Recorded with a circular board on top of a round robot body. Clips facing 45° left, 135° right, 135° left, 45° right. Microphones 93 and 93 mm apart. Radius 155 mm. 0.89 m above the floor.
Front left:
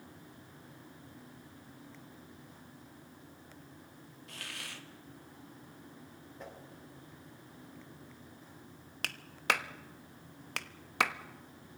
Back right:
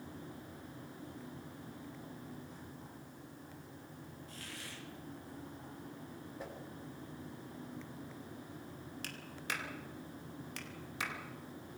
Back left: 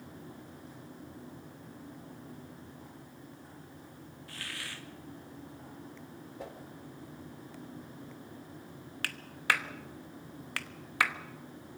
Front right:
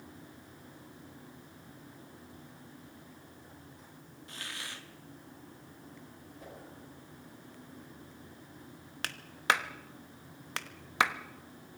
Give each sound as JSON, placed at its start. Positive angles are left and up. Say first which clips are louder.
{"t": 4.3, "sound": "a hiss", "louder": "front left 6 dB, even", "azimuth_deg": 25, "distance_m": 1.6}
{"t": 6.4, "sound": "a whoosh", "louder": "even, back left 5 dB", "azimuth_deg": 140, "distance_m": 4.0}
{"t": 9.0, "sound": "a clap", "louder": "front left 11 dB, front right 2 dB", "azimuth_deg": 25, "distance_m": 1.0}